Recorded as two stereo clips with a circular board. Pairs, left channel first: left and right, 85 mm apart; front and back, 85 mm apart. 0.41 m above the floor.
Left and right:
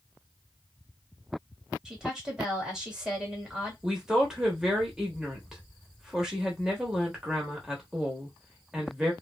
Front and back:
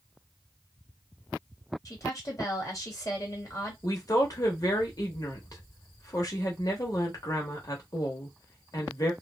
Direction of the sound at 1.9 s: 10° right.